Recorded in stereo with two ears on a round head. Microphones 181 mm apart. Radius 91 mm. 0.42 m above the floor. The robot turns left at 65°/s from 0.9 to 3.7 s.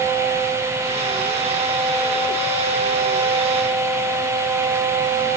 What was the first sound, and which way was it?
Only background noise.